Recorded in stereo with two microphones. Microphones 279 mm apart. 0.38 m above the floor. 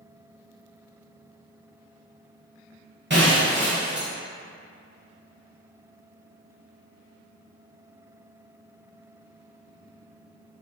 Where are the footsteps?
I don't hear footsteps.